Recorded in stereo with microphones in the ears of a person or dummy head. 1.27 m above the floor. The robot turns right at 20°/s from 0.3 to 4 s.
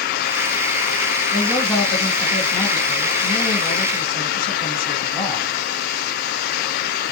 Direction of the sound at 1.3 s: 10° right.